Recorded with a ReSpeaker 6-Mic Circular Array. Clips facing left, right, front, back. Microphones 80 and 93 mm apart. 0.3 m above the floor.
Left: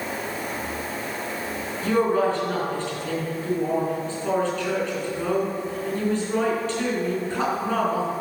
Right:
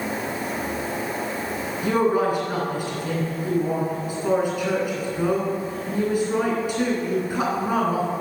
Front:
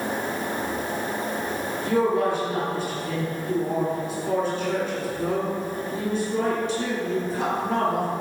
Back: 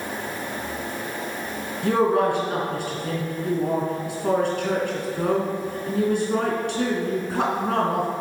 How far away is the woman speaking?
About 3.5 m.